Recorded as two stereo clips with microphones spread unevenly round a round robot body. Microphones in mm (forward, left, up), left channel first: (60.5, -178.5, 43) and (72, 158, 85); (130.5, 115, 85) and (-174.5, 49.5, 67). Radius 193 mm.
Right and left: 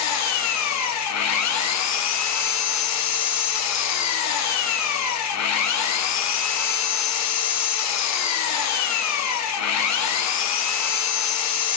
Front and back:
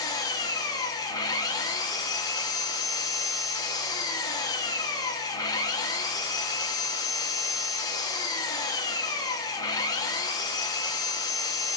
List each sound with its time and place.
0.0 s an engine running: 70° right, 0.9 m